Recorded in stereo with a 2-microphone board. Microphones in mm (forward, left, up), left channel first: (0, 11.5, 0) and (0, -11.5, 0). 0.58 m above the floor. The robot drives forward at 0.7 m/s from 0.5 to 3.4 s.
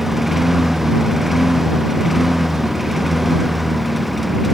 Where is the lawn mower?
10° right (ahead or behind); by 4.5 s 5° right (ahead or behind).